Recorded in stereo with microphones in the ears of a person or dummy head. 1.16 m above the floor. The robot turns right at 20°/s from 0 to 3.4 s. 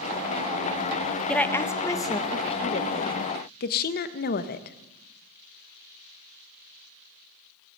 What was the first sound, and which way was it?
A woman speaking, 5° left (ahead or behind).